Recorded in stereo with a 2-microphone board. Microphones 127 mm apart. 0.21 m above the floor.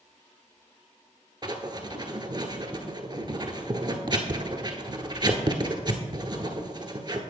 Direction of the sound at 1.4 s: 35° right (ahead or behind).